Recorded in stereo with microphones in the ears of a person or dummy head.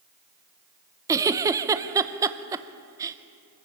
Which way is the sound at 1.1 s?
15° right (ahead or behind).